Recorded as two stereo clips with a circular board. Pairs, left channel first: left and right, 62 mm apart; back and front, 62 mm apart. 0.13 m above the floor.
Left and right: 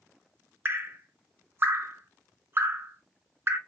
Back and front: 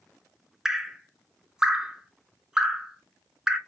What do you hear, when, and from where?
0.7 s dripping: 75° right, 0.5 m